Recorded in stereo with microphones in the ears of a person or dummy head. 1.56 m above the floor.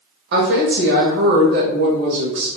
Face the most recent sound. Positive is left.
turn(degrees=-55)  # may be behind; listen again after turning